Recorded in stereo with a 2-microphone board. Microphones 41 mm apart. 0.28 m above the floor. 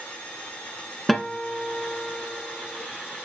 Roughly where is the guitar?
Centre.